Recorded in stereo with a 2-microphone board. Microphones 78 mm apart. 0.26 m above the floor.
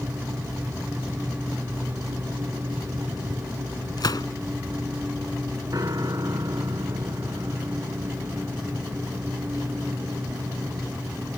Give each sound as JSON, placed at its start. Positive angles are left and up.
{"t": 4.0, "sound": "a gunshot", "side_deg": 65}
{"t": 5.7, "sound": "a piano", "side_deg": -55}